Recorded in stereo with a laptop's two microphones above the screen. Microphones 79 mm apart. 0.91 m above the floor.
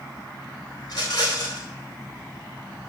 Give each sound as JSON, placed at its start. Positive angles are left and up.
{"t": 0.8, "sound": "a rattle", "side_deg": 55, "distance_m": 3.0}